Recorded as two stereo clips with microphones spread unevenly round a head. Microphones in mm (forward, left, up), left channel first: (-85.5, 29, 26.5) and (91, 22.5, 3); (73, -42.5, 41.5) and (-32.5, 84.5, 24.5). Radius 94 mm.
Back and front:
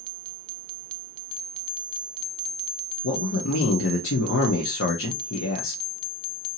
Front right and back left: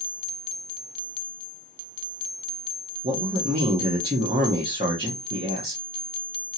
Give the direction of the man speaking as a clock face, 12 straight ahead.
6 o'clock.